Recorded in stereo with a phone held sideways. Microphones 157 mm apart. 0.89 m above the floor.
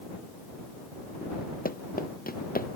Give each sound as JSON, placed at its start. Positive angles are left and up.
{"t": 1.6, "sound": "running footsteps", "side_deg": 70}